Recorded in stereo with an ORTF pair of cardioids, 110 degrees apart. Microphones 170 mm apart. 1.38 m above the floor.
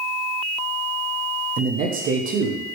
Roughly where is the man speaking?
Ahead right.